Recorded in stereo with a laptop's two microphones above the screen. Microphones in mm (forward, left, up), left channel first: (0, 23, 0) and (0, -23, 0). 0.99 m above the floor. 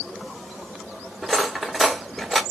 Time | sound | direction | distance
1.2 | cutlery clinking | centre (ahead or behind) | 1.6 m